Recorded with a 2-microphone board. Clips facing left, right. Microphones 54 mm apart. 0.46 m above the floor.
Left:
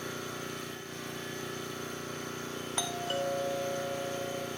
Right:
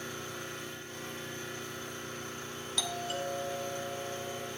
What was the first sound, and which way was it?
An engine running, 85° left.